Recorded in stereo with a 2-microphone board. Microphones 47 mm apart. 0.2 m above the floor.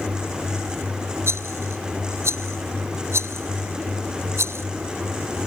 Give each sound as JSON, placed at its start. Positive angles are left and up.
{"t": 1.3, "sound": "a rattle", "side_deg": -60}